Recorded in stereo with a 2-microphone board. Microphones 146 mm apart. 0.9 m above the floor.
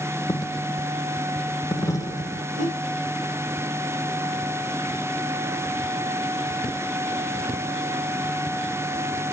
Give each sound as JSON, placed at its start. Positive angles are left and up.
{"t": 0.3, "sound": "a dropped coin", "side_deg": 20, "distance_m": 0.8}
{"t": 2.5, "sound": "a whoosh", "side_deg": -50, "distance_m": 4.5}